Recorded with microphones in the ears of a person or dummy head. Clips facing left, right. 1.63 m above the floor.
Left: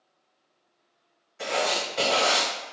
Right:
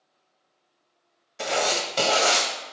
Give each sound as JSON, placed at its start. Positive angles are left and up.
{"t": 1.4, "sound": "writing", "side_deg": -65, "distance_m": 0.7}